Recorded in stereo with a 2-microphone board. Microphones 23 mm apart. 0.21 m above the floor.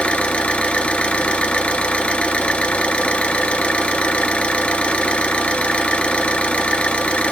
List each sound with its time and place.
0.0 s an engine running: 60° left (ahead or behind), 0.8 m